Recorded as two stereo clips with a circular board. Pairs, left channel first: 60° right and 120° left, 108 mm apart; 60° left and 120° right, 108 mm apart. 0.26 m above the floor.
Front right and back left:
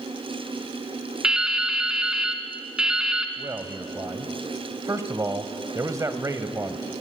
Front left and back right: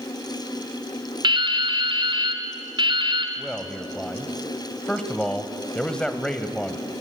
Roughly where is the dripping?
Behind right.